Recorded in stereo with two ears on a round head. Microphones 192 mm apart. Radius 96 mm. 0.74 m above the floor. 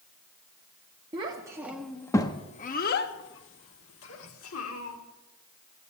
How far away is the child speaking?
About 1.1 m.